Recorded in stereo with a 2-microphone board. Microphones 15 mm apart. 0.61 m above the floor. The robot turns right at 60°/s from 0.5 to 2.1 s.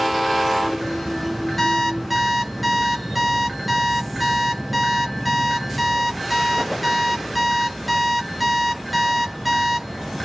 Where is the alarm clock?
160° left, 3 m; by 9.9 s 170° right, 3 m.